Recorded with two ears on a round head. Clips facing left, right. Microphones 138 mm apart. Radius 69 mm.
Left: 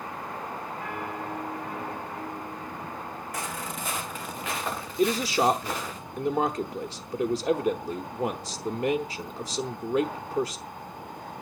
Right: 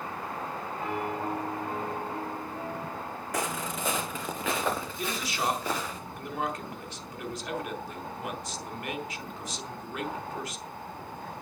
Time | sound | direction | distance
0.8 | a piano | 25° right (ahead or behind) | 3.5 m
3.3 | footsteps | 65° right (ahead or behind) | 2.5 m
5.0 | a man speaking | 30° left (ahead or behind) | 0.9 m